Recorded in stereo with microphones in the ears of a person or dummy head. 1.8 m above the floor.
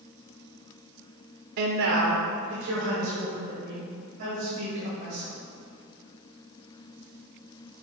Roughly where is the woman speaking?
Right.